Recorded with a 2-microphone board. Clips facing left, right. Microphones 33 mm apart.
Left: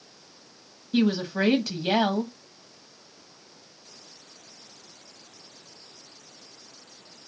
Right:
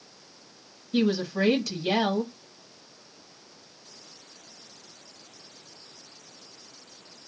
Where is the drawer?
I don't hear a drawer.